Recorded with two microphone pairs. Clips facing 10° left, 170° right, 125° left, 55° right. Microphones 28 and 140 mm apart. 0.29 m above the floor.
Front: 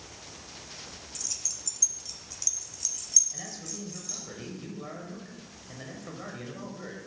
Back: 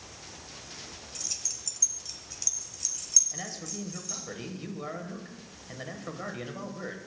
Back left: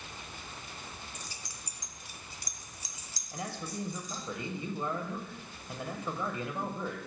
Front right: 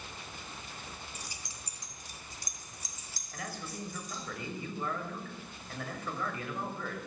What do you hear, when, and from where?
1.1 s keys jangling: 125° right, 0.6 m; by 4.2 s 80° right, 1.8 m
3.3 s a man speaking: 155° left, 1.0 m